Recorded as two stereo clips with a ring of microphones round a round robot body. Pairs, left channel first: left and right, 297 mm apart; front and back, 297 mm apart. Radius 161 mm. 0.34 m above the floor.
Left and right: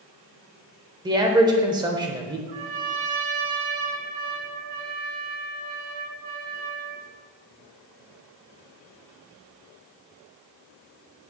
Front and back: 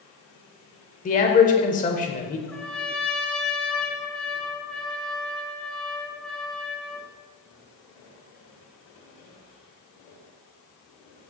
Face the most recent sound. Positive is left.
turn(degrees=-85)